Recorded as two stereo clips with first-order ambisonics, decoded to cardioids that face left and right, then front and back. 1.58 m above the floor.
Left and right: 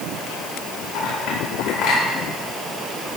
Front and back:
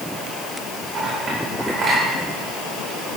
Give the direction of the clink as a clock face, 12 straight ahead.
8 o'clock.